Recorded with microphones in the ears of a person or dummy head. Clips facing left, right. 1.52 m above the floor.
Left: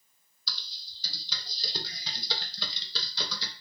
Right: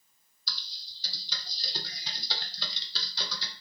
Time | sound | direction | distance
0.5 | typing on a keyboard | 70° left (ahead or behind) | 0.6 m